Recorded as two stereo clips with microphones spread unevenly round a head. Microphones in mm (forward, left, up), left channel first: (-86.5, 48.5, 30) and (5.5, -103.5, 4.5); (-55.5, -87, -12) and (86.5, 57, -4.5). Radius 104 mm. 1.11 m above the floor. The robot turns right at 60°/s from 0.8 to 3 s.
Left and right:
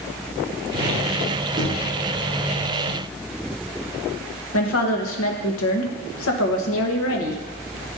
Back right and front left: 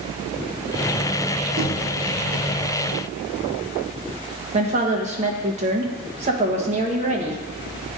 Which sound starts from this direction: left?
A woman speaking, at 4.5 s.